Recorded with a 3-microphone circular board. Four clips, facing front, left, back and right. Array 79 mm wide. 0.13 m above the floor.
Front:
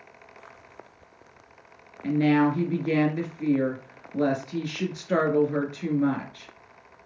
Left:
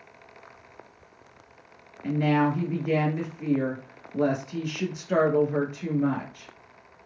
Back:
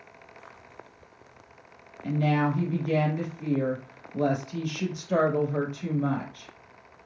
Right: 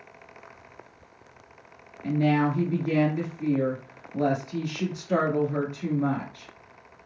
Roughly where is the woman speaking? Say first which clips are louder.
Even, front 5 dB; ahead.